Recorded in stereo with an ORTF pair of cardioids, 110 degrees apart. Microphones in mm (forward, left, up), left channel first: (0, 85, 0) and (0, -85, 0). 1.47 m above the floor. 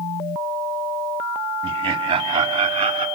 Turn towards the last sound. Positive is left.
turn(degrees=-35)